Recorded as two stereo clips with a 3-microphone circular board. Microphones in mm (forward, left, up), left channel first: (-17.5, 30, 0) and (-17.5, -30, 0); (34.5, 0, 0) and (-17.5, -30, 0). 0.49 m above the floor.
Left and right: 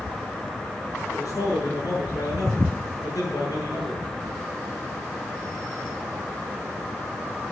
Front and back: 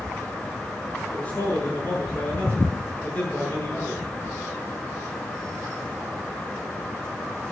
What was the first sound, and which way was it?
A man speaking, 95° left.